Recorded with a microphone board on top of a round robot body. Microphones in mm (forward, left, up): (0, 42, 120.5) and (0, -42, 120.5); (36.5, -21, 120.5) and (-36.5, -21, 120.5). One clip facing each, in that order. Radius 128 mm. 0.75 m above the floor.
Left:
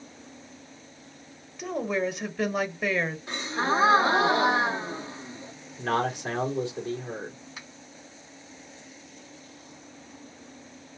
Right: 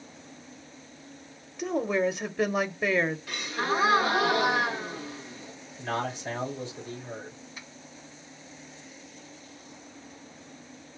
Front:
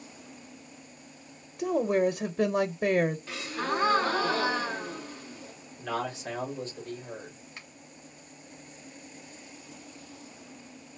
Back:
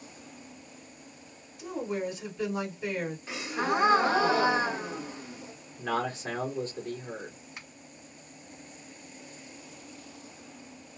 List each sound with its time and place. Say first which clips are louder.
1.6 s a woman speaking: right 2 dB, front 8 dB; 15° right, 0.8 m
3.3 s a gasp: left 2 dB, back 2 dB; 125° left, 1.2 m
5.8 s a man speaking: left 5 dB, back 2 dB; 120° left, 2 m
7.6 s a finger snap: left 1 dB, even; 100° left, 3 m